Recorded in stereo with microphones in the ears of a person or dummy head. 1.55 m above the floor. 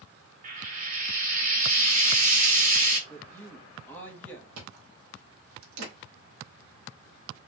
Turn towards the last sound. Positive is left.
turn(degrees=-70)  # may be behind; listen again after turning